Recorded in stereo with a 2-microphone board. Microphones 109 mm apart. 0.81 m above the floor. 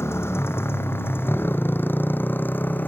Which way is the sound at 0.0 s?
25° left (ahead or behind).